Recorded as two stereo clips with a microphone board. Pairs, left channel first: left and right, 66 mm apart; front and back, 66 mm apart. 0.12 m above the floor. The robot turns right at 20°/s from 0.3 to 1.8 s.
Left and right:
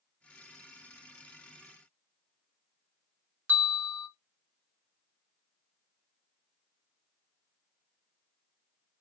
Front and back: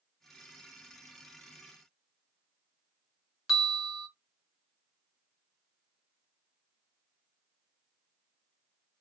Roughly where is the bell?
Right.